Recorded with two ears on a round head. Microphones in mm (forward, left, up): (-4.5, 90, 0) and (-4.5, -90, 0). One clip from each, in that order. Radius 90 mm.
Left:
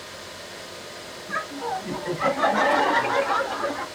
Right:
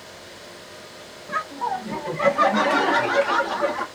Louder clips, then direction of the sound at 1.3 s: Right 3 dB; 30° right (ahead or behind).